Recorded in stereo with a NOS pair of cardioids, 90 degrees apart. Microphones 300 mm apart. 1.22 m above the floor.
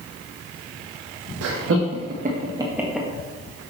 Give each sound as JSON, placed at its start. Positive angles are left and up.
{"t": 1.4, "sound": "laughter", "azimuth_deg": -60, "distance_m": 1.2}